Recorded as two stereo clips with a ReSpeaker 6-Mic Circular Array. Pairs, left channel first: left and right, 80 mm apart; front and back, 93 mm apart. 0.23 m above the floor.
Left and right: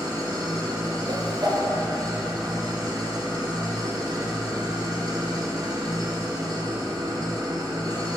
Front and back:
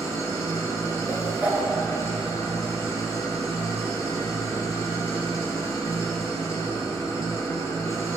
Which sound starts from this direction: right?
A whoosh, at 1.1 s.